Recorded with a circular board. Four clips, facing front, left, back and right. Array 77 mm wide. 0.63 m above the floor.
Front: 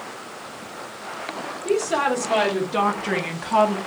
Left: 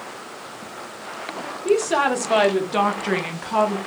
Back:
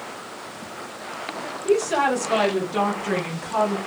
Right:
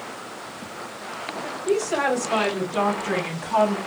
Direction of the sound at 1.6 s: 90° left.